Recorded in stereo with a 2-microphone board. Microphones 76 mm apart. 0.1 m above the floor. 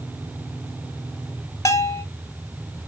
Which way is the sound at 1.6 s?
40° left (ahead or behind).